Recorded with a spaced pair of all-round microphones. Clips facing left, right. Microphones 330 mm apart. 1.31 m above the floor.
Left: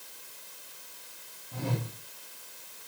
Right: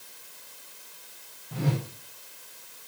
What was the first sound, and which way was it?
A whoosh, 80° right.